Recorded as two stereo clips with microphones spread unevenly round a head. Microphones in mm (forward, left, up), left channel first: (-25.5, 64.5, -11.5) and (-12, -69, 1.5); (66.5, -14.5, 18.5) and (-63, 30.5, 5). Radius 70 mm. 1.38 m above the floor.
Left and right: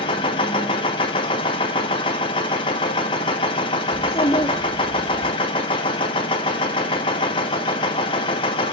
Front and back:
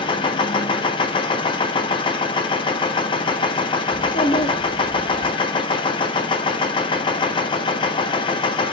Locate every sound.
0.0 s a machine running: 35° left, 1.0 m
3.9 s a child speaking: 35° left, 2.0 m